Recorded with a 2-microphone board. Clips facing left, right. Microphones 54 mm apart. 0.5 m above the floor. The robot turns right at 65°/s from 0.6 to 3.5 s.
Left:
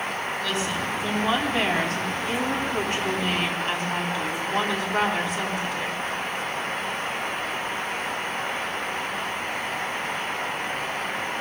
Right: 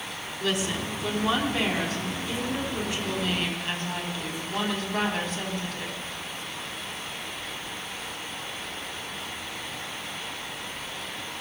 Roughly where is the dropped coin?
I don't hear a dropped coin.